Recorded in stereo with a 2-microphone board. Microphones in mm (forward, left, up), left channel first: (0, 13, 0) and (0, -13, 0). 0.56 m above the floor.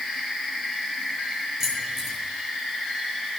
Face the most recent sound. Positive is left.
turn(degrees=-10)  # may be behind; listen again after turning